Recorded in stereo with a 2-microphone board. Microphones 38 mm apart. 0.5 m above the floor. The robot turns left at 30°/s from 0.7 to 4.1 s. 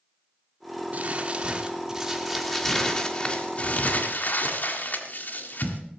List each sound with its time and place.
0.9 s crumpling: 140° right, 2 m; by 5.8 s 125° left, 2 m